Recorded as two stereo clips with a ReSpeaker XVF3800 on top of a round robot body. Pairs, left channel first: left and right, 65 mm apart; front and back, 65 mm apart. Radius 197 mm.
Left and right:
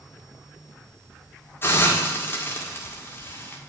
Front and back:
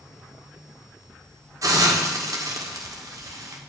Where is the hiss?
145° left, 1.8 m.